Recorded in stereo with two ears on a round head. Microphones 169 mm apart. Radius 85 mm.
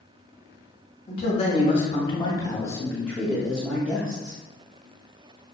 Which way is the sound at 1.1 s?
35° left (ahead or behind).